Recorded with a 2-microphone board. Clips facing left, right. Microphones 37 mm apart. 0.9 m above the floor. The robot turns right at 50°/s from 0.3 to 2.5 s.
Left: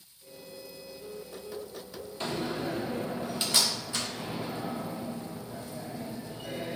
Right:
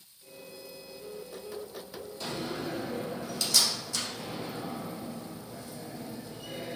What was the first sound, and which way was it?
A door slam, 45° left (ahead or behind).